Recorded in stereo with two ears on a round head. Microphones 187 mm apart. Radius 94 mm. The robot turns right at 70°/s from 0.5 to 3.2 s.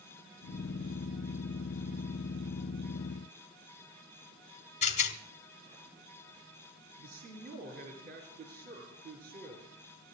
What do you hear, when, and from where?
4.8 s a rattle: 35° left (ahead or behind), 1.1 m
7.0 s a man speaking: 50° right (ahead or behind), 6 m